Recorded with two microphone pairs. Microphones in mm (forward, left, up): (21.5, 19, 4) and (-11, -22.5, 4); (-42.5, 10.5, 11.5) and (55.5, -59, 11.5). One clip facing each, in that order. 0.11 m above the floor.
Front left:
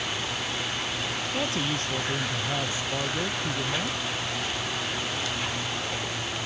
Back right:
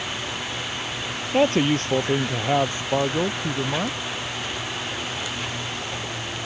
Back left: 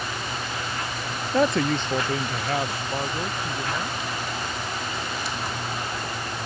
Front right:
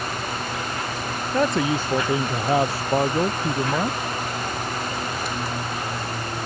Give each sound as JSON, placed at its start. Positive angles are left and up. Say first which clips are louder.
{"t": 1.3, "sound": "a man speaking", "louder": "back right 12 dB, even", "azimuth_deg": -130}